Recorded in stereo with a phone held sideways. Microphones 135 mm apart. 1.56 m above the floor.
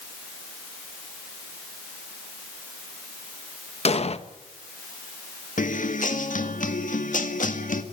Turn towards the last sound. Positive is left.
turn(degrees=75)  # may be behind; listen again after turning